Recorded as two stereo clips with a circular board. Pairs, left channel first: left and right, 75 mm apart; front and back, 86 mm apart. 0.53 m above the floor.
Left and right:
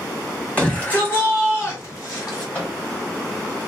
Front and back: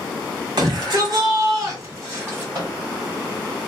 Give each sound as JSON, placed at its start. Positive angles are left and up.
{"t": 0.6, "sound": "a shout", "azimuth_deg": 160, "distance_m": 1.8}
{"t": 2.5, "sound": "a microwave", "azimuth_deg": 165, "distance_m": 2.0}